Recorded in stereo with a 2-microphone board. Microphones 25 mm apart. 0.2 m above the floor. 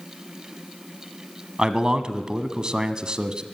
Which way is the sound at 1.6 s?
35° right (ahead or behind).